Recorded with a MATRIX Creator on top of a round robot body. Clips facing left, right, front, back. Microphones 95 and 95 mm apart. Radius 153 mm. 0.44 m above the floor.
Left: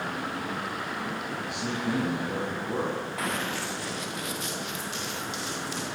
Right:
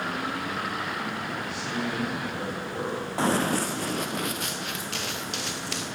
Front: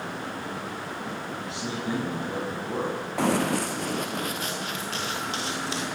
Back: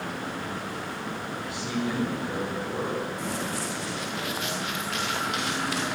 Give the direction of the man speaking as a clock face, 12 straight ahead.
10 o'clock.